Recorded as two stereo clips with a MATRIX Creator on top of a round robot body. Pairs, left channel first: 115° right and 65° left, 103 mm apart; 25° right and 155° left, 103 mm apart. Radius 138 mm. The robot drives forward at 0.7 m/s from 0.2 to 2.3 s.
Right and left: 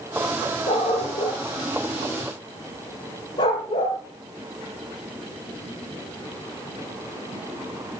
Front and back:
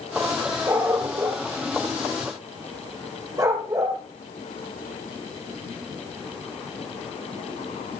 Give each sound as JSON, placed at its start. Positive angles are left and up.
{"t": 0.7, "sound": "a dog barking", "azimuth_deg": -140, "distance_m": 3.5}